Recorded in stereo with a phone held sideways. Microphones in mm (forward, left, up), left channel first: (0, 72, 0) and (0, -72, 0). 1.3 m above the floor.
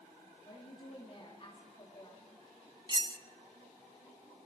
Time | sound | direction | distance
0.5 | a woman speaking | 40° left (ahead or behind) | 2.5 m
2.9 | cutlery clinking | 30° right (ahead or behind) | 0.6 m